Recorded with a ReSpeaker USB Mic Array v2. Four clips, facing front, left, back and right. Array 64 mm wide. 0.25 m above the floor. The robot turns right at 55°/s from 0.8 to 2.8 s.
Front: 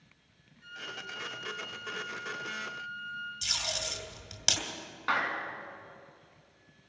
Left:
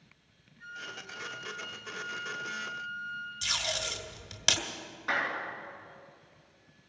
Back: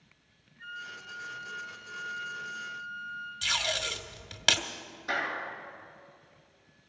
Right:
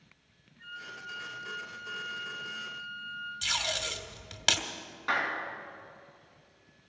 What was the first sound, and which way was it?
A flute, 155° right.